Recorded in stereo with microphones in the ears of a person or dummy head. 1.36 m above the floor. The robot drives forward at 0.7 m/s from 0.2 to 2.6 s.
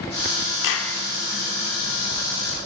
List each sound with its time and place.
0.6 s a clap: 70° left (ahead or behind), 3 m; by 0.9 s 75° left (ahead or behind), 3 m